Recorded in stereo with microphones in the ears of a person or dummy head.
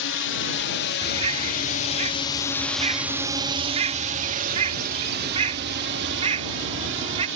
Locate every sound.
0.0 s a drone: 65° left (ahead or behind); by 7.4 s 65° right (ahead or behind)
1.0 s a bird: 35° right (ahead or behind)